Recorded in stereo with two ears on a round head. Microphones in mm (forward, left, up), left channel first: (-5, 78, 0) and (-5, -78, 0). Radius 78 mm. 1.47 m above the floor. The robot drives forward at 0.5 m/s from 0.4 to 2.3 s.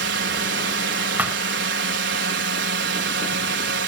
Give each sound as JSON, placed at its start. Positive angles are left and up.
{"t": 0.0, "sound": "a drone", "side_deg": -70}
{"t": 1.2, "sound": "a thud", "side_deg": -10}